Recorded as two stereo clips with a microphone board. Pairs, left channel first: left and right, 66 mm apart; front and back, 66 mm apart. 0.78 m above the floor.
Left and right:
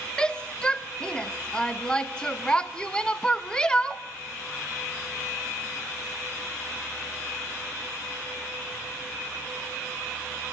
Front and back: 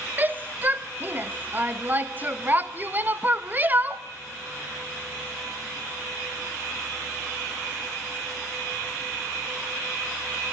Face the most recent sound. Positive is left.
turn(degrees=155)